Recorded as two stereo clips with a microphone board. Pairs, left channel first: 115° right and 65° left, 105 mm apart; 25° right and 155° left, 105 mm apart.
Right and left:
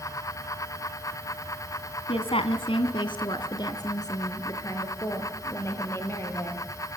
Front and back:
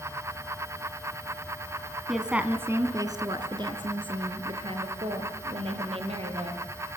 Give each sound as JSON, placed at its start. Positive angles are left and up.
{"t": 2.1, "sound": "a woman speaking", "azimuth_deg": -115, "distance_m": 2.0}